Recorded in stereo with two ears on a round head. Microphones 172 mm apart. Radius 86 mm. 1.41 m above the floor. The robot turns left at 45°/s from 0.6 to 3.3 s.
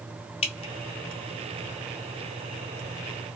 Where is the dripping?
30° left (ahead or behind), 0.5 m; by 0.7 s 25° left (ahead or behind), 0.5 m.